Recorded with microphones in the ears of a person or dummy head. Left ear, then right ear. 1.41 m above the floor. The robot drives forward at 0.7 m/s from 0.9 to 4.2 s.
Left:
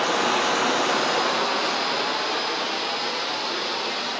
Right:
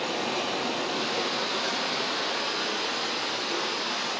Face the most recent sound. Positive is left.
turn(degrees=15)  # may be behind; listen again after turning